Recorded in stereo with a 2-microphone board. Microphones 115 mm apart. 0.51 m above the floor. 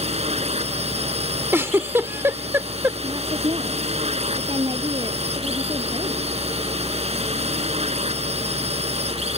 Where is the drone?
60° right (ahead or behind).